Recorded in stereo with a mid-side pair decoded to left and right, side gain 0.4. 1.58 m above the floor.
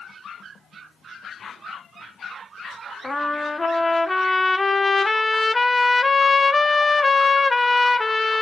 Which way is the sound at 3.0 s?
20° left.